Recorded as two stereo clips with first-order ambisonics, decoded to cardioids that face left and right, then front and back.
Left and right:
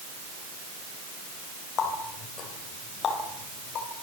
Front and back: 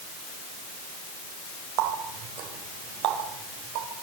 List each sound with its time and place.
1.8 s a running tap: 145° left, 4 m